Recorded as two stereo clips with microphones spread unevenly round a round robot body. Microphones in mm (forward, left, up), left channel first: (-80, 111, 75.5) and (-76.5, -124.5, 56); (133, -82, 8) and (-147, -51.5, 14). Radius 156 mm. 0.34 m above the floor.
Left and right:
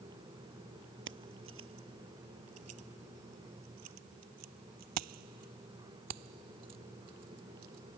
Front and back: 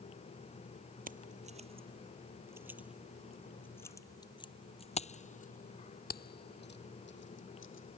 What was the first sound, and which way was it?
Keys jangling, 125° right.